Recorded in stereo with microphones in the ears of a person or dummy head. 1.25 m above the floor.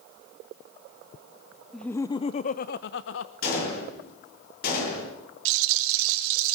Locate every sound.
1.7 s laughter: 5° left (ahead or behind), 0.6 m; by 3.3 s 75° left (ahead or behind), 0.9 m
3.4 s a gunshot: 55° left (ahead or behind), 8.5 m
5.5 s a rattle: 80° right, 2 m